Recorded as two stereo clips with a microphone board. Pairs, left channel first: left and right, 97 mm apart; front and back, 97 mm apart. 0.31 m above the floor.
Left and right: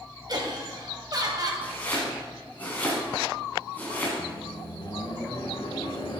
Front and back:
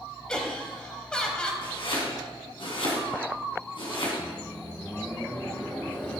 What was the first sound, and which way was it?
Laughter, 80° right.